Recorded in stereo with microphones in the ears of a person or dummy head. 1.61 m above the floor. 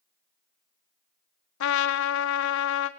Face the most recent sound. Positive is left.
turn(degrees=70)  # may be behind; listen again after turning